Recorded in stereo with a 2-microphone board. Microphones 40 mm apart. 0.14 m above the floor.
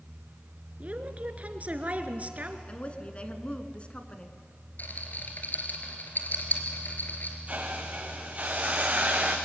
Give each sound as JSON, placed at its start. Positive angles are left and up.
{"t": 0.8, "sound": "a woman speaking", "side_deg": -40, "distance_m": 1.9}
{"t": 2.7, "sound": "a woman speaking", "side_deg": 30, "distance_m": 1.8}
{"t": 4.8, "sound": "a rattle", "side_deg": 50, "distance_m": 3.0}
{"t": 7.5, "sound": "a hiss", "side_deg": -35, "distance_m": 3.5}